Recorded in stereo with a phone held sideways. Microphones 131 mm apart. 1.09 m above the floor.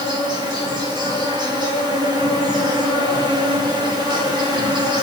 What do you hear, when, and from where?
0.0 s an insect: 35° right (ahead or behind), 4 m